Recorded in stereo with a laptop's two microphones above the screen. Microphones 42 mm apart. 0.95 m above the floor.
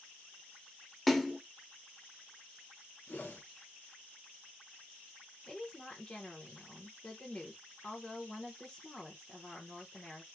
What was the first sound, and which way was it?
A splash, 5° left (ahead or behind).